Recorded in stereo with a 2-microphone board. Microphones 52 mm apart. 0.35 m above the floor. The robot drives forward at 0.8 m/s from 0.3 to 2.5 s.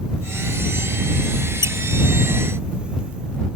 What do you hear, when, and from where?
1.6 s a squeak: 85° right; by 1.8 s 80° right